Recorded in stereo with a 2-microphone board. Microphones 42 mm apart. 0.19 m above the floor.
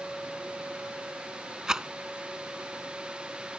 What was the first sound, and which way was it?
A rattle, 15° right (ahead or behind).